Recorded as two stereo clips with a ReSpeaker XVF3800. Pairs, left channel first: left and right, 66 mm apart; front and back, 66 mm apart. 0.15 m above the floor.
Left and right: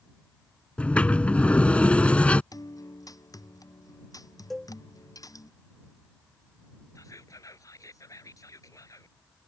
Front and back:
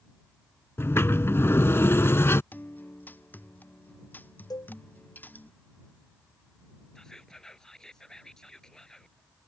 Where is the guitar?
65° left.